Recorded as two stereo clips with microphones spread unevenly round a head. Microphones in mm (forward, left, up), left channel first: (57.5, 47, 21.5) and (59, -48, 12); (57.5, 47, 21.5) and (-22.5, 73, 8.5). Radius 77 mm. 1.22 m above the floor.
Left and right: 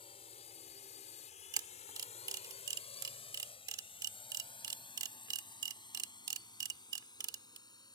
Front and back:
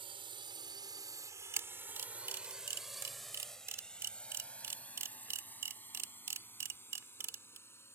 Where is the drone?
145° left; by 8.0 s 45° left.